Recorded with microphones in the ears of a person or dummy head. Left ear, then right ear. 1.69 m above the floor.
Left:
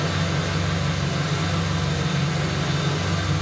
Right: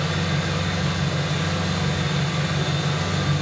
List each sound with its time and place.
0.0 s an engine running: 30° right (ahead or behind), 2 m